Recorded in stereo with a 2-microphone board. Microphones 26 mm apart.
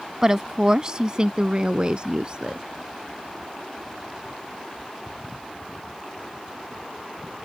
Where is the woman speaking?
15° right (ahead or behind); by 2.6 s 40° right (ahead or behind).